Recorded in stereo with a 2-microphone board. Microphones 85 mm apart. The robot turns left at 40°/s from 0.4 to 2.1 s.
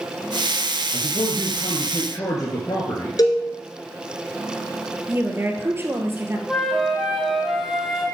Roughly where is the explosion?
No explosion in this recording.